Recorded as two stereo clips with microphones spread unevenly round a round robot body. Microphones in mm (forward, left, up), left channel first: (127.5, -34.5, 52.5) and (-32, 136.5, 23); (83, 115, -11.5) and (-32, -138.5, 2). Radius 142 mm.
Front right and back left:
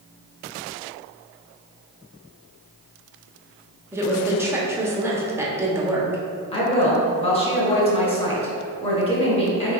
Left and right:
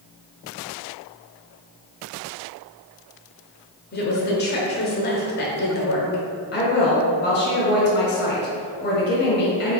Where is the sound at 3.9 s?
70° left, 1.0 m.